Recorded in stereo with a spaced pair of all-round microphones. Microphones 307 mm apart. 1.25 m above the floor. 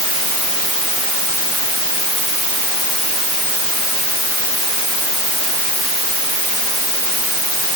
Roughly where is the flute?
No flute in this recording.